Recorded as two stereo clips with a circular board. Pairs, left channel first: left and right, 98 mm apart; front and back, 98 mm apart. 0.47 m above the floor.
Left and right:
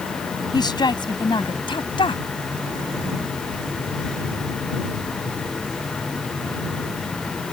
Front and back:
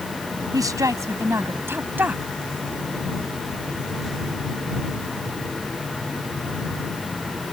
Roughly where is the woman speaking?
Behind left.